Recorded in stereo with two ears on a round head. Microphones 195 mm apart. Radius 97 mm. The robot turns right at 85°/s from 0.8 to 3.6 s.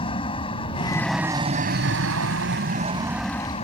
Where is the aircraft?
150° left; by 3.6 s 30° left.